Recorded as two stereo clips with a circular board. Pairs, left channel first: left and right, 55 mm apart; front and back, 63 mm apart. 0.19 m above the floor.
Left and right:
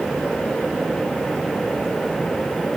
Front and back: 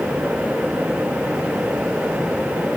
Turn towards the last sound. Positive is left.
No sound to turn to.